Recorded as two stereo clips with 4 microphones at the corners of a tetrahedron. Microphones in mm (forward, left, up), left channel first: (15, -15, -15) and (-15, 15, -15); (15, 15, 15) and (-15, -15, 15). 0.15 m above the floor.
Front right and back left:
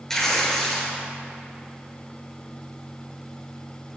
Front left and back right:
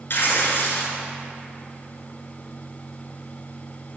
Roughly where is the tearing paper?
Ahead left.